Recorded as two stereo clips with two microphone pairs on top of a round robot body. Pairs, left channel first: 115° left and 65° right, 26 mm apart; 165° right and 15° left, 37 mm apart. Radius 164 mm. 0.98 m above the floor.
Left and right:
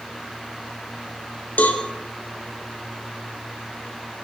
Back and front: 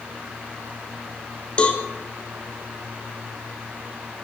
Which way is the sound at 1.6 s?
135° left.